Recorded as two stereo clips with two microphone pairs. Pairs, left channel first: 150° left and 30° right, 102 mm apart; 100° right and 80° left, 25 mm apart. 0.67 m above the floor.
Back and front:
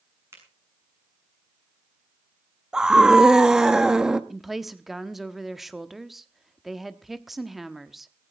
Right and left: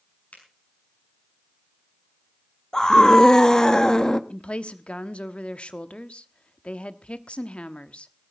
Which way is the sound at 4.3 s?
120° right.